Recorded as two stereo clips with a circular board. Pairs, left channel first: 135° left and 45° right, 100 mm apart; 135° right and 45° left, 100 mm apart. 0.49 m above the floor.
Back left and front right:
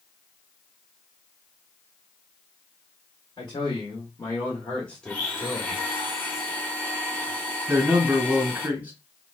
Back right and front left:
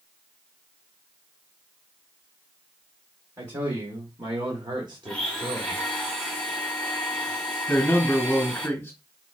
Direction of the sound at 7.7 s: 95° right.